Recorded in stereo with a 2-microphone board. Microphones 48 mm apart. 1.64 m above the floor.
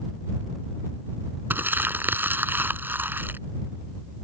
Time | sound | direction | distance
1.5 | crumpling | 40° right (ahead or behind) | ?